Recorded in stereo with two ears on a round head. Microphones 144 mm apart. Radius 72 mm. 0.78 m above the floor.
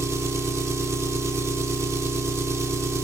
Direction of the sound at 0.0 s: 20° right (ahead or behind).